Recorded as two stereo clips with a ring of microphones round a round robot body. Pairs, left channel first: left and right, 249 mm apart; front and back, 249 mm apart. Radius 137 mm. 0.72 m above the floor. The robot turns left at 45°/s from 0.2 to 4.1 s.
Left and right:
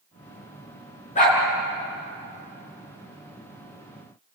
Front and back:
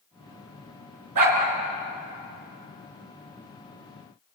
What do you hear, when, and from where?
1.1 s a dog barking: 155° left, 4 m; by 1.4 s 145° left, 4 m